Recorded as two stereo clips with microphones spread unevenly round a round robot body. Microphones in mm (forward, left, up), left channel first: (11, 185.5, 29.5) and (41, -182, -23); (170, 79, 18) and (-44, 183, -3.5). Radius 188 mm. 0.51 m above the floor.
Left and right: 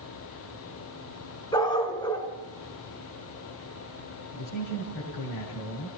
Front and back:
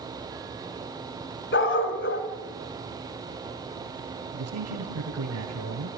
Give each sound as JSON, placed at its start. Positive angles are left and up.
{"t": 1.5, "sound": "a dog barking", "azimuth_deg": 15, "distance_m": 2.5}
{"t": 4.3, "sound": "a man speaking", "azimuth_deg": 140, "distance_m": 3.0}